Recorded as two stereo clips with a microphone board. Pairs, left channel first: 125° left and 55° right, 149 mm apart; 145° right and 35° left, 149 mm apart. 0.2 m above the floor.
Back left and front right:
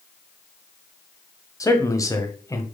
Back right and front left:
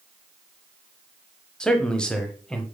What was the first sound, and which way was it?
A man speaking, 140° left.